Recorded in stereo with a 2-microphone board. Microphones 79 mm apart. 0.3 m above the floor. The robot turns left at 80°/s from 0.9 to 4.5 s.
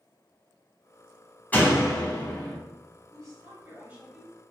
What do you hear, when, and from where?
1.5 s a door slam: 155° left, 1.3 m; by 2.6 s 75° left, 1.3 m
3.1 s a woman speaking: 85° right, 1.2 m; by 4.3 s 175° left, 1.2 m